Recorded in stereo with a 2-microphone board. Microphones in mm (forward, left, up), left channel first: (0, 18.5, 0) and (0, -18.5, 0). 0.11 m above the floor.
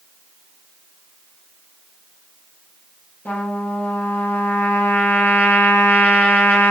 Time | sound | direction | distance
3.2 | a trumpet | 55° left (ahead or behind) | 1.1 m